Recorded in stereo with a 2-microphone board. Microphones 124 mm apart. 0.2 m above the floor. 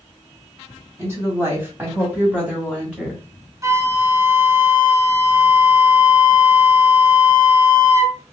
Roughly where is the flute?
Right.